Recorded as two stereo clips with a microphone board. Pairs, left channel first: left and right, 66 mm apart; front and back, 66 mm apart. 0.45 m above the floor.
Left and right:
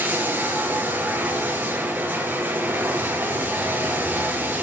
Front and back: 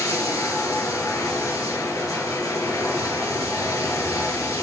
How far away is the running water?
About 3 m.